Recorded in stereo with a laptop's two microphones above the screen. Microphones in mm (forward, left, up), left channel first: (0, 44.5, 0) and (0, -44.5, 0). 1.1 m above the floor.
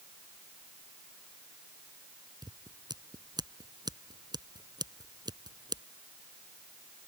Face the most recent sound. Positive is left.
turn(degrees=-50)  # may be behind; listen again after turning